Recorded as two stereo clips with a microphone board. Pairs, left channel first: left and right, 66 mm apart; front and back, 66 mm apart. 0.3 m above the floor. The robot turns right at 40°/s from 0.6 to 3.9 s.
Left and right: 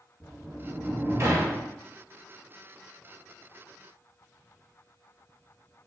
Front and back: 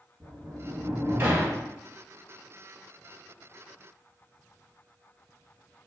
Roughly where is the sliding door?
Behind right.